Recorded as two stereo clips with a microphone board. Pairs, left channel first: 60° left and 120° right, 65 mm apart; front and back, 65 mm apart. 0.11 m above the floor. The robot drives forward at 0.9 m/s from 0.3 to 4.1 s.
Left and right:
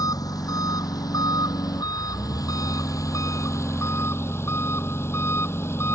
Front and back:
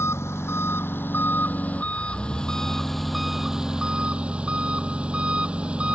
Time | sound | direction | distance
0.0 | an engine running | 45° left | ?